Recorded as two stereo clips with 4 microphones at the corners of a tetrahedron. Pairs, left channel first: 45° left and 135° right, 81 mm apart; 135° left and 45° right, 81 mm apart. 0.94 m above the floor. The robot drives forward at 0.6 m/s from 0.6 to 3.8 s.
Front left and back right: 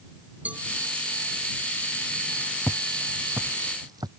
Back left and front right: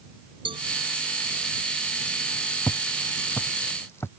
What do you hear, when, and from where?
0.5 s a cowbell: 65° right
2.7 s footsteps: 95° left; by 4.1 s 165° right